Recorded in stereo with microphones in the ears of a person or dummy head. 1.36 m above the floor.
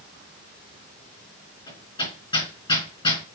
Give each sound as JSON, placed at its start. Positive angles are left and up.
{"t": 1.7, "sound": "hammering", "side_deg": 25, "distance_m": 4.0}